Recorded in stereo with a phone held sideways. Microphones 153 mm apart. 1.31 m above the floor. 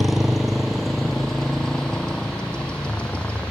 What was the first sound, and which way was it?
A motorcycle, 5° right (ahead or behind).